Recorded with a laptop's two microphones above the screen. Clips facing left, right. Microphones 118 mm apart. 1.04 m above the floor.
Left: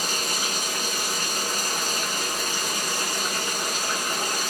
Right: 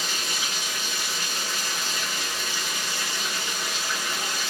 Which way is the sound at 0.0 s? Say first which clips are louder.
Left 3 dB; 45° left (ahead or behind).